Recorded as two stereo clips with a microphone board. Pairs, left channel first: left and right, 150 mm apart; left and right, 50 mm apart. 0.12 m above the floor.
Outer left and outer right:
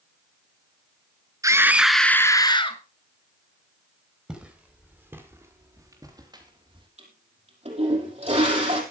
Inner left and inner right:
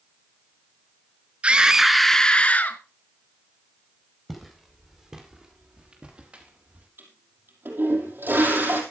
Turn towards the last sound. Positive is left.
turn(degrees=-45)  # may be behind; listen again after turning